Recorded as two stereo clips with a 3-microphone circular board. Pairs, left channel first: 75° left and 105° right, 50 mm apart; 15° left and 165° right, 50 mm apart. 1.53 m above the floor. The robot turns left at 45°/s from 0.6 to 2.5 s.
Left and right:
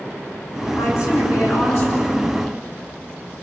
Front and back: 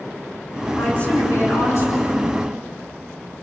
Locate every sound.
0.8 s a woman speaking: 80° left, 7.5 m; by 2.3 s 10° left, 7.5 m